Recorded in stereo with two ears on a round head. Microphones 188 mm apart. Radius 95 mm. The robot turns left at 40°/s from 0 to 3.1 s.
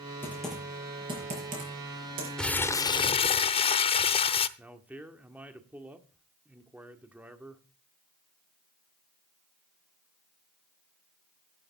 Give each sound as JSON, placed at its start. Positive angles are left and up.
{"t": 0.2, "sound": "typing on a keyboard", "side_deg": 10, "distance_m": 6.5}
{"t": 2.4, "sound": "crumpling", "side_deg": 5, "distance_m": 0.6}
{"t": 4.6, "sound": "a man speaking", "side_deg": -10, "distance_m": 1.5}